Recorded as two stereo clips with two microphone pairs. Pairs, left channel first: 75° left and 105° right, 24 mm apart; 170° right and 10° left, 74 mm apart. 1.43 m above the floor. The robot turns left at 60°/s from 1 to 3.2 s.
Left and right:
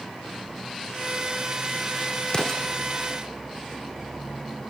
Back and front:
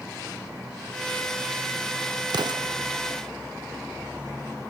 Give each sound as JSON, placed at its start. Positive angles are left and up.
{"t": 2.3, "sound": "an explosion", "azimuth_deg": 25}